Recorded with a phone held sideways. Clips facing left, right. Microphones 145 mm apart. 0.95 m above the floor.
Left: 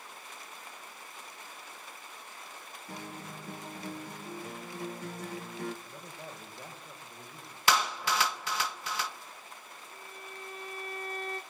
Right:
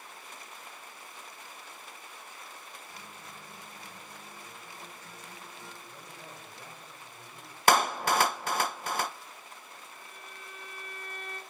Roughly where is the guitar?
Left.